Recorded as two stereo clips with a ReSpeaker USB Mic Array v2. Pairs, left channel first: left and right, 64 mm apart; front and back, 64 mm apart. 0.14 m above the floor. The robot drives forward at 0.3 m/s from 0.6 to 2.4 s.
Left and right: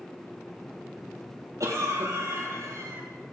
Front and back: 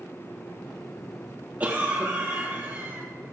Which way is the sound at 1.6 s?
120° right.